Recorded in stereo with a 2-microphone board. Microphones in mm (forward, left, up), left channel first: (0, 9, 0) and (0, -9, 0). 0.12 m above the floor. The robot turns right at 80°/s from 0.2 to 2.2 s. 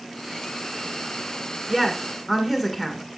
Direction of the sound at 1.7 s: 15° right (ahead or behind).